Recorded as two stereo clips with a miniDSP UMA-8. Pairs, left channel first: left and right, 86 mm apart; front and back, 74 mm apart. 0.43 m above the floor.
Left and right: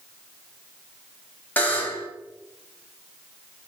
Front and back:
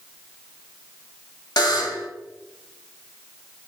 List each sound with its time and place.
1.6 s a buzzer: 20° left, 0.7 m